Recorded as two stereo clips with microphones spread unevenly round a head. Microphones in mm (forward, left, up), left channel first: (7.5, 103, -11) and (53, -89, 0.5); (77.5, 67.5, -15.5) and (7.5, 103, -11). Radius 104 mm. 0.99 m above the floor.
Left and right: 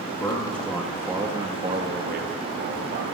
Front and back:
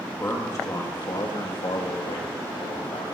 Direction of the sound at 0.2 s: 30° left.